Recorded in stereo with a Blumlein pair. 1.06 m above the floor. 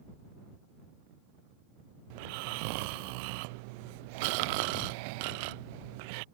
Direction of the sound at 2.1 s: 45° right.